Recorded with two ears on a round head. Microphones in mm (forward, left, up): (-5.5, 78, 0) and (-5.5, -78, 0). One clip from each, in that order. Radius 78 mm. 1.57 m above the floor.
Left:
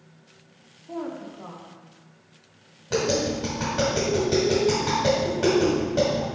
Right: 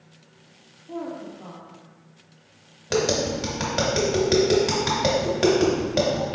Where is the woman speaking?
50° left (ahead or behind), 0.9 m.